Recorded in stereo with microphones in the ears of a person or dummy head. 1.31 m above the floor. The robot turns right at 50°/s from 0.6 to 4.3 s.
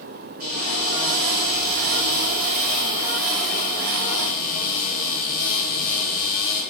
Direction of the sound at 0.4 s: 135° right.